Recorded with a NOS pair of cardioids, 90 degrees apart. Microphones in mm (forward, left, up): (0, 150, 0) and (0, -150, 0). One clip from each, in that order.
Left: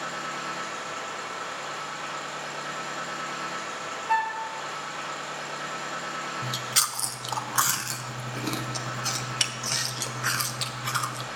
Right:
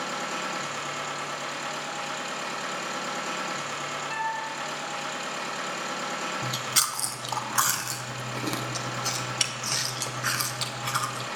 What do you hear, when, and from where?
0.0 s a machine running: 70° right, 3.5 m
4.1 s a flute: 35° left, 1.0 m
6.4 s chewing: straight ahead, 0.5 m